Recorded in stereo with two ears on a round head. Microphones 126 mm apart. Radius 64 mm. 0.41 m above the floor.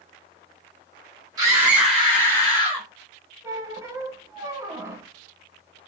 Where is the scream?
25° right (ahead or behind), 1.0 m; by 2.9 s 35° left (ahead or behind), 1.3 m.